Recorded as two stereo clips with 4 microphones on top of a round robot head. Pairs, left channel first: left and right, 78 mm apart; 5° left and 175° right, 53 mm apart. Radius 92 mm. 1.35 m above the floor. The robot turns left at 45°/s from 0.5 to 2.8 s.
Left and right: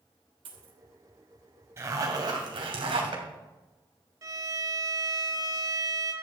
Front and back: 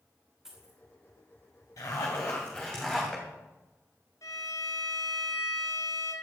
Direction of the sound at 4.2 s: 45° right.